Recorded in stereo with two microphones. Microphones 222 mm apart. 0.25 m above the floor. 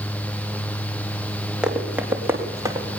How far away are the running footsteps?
About 6 m.